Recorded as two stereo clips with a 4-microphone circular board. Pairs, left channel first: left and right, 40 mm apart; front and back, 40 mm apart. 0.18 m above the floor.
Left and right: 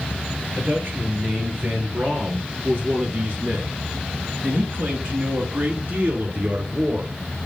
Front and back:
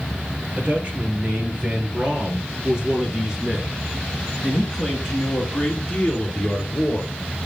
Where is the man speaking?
130° right, 3.5 m; by 7.1 s 55° right, 2.5 m.